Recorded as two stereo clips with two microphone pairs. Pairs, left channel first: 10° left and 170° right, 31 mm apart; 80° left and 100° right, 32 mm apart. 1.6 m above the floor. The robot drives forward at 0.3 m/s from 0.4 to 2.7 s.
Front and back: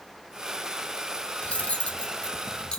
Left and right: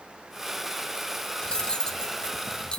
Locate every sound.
1.4 s cutlery clinking: 25° left, 1.1 m; by 2.8 s 40° left, 0.9 m